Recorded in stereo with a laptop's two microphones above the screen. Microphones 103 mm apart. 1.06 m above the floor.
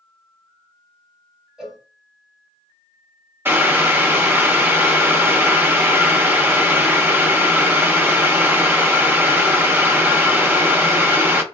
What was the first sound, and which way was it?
A cowbell, 5° right (ahead or behind).